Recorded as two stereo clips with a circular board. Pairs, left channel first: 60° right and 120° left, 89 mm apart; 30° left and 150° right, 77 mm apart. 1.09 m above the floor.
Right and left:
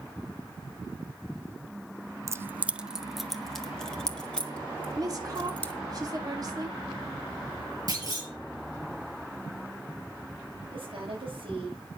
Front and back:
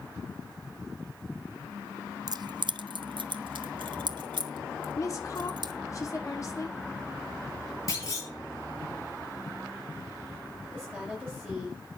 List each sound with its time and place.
2.3 s keys jangling: 175° left, 0.5 m; by 5.7 s 135° right, 2.5 m
5.0 s a woman speaking: 75° left, 1.9 m
7.9 s a clunk: 80° left, 5 m
10.7 s a woman speaking: 120° left, 6.5 m